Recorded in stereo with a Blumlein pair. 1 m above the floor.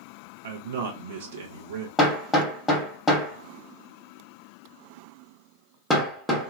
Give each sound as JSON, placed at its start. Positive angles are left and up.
{"t": 0.4, "sound": "a man speaking", "azimuth_deg": -60, "distance_m": 0.8}
{"t": 2.0, "sound": "hammering", "azimuth_deg": 5, "distance_m": 0.9}